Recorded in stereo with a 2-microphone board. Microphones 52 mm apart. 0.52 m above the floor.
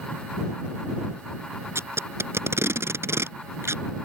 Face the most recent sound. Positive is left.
turn(degrees=-55)  # may be behind; listen again after turning